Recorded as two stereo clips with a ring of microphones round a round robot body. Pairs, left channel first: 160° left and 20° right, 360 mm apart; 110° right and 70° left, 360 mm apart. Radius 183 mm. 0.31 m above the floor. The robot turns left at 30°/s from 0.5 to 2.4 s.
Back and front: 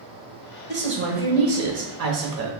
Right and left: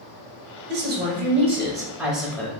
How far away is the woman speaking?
About 1.2 m.